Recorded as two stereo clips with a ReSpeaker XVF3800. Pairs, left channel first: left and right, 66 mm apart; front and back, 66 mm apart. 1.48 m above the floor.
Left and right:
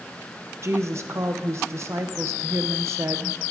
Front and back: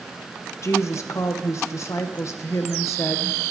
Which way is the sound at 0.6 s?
45° right.